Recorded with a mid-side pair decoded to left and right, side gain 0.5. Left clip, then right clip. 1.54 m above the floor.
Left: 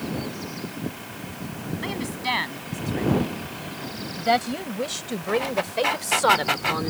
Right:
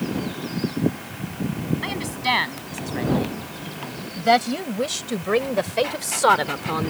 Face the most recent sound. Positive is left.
turn(degrees=-15)